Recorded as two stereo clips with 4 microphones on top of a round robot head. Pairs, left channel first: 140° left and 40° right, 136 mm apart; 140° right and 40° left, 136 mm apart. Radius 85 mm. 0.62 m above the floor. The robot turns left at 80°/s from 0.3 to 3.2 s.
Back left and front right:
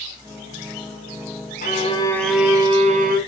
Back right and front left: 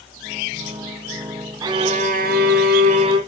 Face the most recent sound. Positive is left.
turn(degrees=-20)